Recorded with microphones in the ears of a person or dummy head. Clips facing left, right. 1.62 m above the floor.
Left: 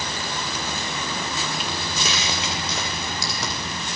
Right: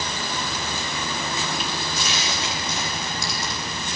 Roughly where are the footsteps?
Left.